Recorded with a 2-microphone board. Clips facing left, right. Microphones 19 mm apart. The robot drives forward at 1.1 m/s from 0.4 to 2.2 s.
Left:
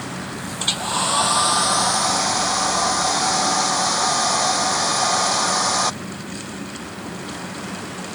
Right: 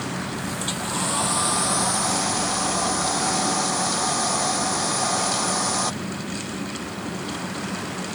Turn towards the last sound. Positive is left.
turn(degrees=25)  # may be behind; listen again after turning